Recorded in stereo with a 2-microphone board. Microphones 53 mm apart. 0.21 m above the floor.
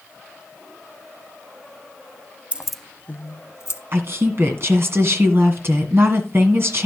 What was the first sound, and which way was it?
Keys jangling, 25° right (ahead or behind).